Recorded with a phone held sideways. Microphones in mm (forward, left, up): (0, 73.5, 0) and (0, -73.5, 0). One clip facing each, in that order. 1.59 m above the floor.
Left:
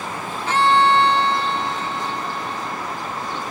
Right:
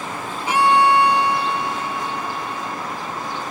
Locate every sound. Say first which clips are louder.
0.5 s a violin: right 1 dB; 15° right (ahead or behind)